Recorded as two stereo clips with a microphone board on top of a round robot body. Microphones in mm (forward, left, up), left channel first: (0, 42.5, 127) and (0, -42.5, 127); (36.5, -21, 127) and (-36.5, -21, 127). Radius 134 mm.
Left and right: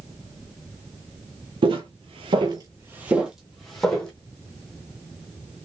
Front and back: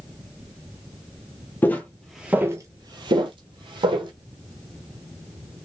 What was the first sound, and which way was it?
Footsteps, 65° right.